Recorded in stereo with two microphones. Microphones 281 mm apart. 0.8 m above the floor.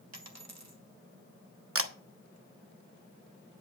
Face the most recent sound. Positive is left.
turn(degrees=-50)  # may be behind; listen again after turning